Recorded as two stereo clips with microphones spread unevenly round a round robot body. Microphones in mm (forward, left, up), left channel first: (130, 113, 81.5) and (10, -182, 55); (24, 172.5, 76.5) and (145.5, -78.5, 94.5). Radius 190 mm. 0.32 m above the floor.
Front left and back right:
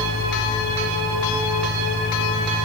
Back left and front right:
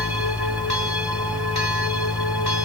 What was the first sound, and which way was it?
Only background noise.